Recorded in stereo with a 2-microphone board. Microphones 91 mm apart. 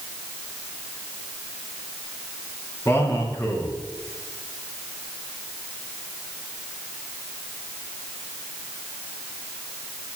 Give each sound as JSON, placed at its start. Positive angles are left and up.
{"t": 2.9, "sound": "a man speaking", "side_deg": 30, "distance_m": 3.0}